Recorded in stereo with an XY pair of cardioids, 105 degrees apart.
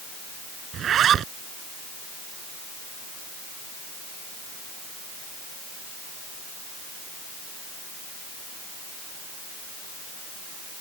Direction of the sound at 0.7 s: 60° right.